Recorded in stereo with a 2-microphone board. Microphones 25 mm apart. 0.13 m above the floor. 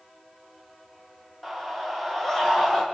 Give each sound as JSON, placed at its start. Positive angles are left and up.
{"t": 1.4, "sound": "a scream", "side_deg": 10, "distance_m": 7.0}